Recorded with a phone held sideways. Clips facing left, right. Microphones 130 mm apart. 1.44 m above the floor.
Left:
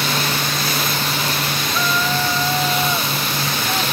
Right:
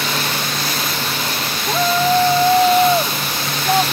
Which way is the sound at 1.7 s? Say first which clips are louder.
Right 8 dB; 40° right (ahead or behind).